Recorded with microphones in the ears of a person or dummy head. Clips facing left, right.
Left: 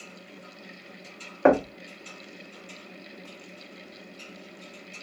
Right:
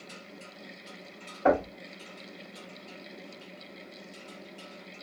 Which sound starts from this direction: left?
Knocking, at 1.4 s.